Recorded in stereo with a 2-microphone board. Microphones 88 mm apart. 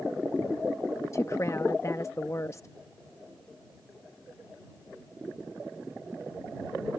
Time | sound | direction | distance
1.1 | a woman speaking | 35° left (ahead or behind) | ?